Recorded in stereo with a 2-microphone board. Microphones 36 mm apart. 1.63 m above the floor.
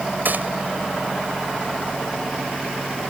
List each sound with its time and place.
0.2 s a gunshot: 65° right (ahead or behind)